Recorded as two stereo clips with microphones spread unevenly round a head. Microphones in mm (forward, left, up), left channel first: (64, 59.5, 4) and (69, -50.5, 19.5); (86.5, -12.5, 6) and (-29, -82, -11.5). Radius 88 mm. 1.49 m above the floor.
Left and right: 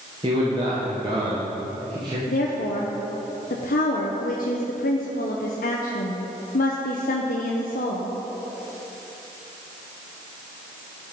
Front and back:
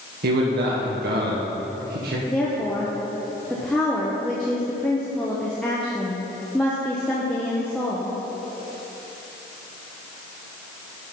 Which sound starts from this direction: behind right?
A man speaking, at 0.2 s.